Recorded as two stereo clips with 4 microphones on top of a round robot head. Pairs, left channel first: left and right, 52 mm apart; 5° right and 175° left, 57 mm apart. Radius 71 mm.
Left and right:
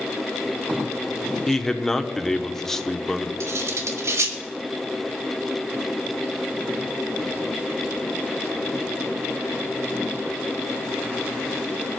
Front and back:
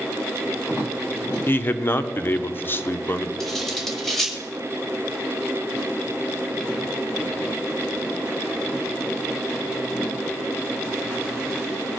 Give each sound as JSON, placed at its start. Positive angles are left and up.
{"t": 1.5, "sound": "a man speaking", "azimuth_deg": 15, "distance_m": 0.9}
{"t": 3.4, "sound": "cutlery clinking", "azimuth_deg": -90, "distance_m": 1.6}